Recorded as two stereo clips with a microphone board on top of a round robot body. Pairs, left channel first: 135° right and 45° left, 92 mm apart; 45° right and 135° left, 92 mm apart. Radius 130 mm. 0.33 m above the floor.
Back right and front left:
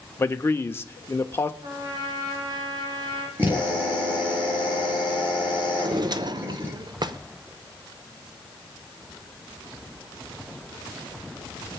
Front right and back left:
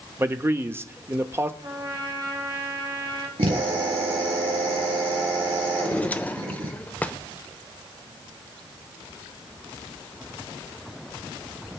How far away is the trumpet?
About 2.5 m.